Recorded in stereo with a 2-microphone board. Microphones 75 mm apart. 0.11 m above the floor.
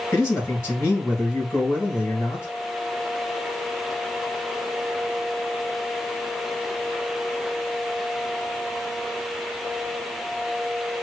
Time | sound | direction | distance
0.1 | a man speaking | 35° left (ahead or behind) | 2.5 m